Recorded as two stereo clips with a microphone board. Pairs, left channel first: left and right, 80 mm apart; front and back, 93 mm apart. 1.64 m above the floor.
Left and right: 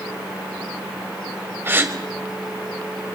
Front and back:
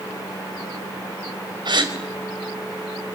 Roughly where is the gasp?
Behind right.